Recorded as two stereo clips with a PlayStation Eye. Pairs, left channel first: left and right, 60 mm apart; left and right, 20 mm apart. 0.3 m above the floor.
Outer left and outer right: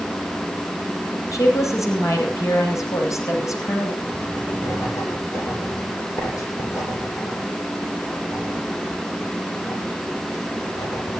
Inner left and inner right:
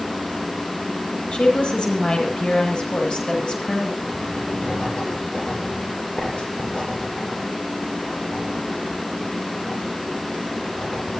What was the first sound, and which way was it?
A woman speaking, 60° left (ahead or behind).